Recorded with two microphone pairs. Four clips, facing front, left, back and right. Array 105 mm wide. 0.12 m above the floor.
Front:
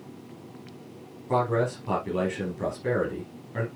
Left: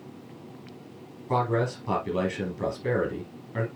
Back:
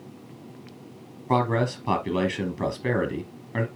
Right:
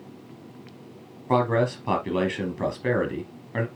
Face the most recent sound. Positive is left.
turn(degrees=-135)